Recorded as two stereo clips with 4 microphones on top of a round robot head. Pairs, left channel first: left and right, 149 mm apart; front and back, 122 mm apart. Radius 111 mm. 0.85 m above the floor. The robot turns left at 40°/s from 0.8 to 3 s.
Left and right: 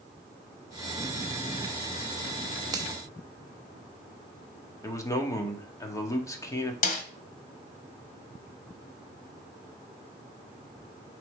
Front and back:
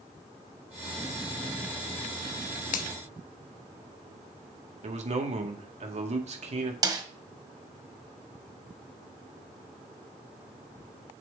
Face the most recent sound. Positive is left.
turn(degrees=120)